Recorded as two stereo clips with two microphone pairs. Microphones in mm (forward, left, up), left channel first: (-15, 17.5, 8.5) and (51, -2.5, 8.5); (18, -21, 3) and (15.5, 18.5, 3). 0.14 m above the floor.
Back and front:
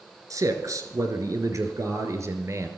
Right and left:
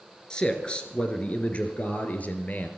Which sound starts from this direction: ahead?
A man speaking, at 0.3 s.